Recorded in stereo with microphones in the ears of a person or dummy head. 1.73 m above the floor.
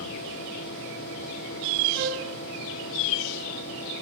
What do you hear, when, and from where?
1.9 s a flute: 70° right (ahead or behind), 5 m